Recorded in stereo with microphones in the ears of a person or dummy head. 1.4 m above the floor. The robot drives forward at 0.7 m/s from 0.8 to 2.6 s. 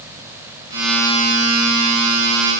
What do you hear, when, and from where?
Only background noise.